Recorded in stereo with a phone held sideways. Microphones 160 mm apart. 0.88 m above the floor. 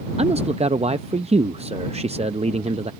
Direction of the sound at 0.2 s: 40° right (ahead or behind).